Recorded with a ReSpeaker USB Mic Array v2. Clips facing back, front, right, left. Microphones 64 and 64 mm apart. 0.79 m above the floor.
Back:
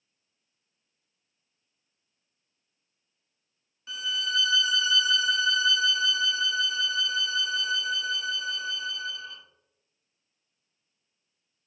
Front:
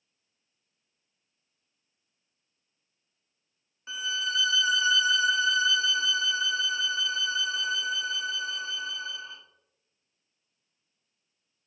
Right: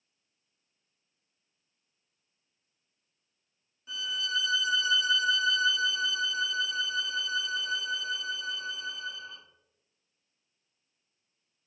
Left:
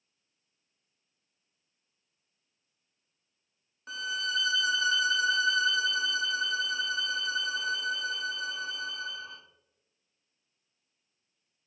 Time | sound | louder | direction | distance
3.9 | a violin | even, left 1 dB | 65° left | 0.5 m